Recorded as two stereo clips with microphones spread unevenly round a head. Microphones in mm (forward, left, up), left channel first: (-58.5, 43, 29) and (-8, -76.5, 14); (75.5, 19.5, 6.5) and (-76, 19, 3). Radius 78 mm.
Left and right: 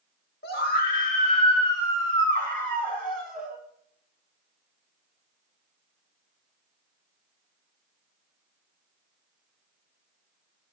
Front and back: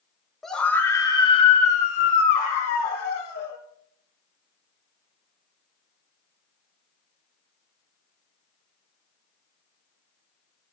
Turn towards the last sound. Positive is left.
turn(degrees=20)